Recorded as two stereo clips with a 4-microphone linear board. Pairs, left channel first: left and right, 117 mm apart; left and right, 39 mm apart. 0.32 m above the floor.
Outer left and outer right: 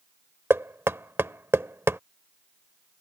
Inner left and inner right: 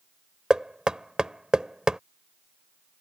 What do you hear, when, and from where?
0.5 s knocking: 20° right (ahead or behind)